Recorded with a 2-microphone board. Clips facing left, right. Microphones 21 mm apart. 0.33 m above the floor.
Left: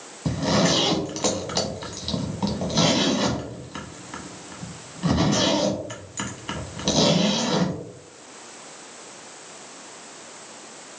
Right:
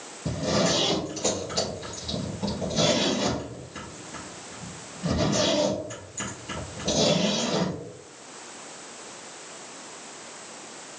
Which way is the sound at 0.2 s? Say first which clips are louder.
Left 3 dB; 75° left (ahead or behind).